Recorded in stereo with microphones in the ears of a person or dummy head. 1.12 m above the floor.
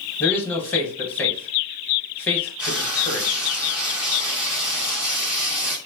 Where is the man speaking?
15° left (ahead or behind), 1.0 m.